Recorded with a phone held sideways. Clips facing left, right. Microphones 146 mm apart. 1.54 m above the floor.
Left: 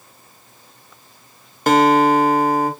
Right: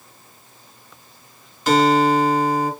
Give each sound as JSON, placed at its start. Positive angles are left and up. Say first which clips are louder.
{"t": 1.7, "sound": "a guitar", "louder": "left 2 dB", "side_deg": 60, "distance_m": 0.5}